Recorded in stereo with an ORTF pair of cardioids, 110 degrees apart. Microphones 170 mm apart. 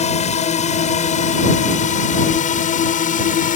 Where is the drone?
45° left; by 3.6 s 55° left.